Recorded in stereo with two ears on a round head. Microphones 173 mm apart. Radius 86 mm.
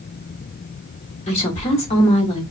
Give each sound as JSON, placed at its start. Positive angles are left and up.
{"t": 1.3, "sound": "a woman speaking", "side_deg": 30, "distance_m": 1.5}